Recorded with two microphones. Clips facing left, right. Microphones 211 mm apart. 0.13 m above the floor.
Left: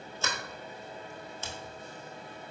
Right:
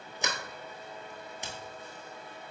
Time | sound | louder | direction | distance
0.2 | a sliding door | right 1 dB | 15° right (ahead or behind) | 0.9 m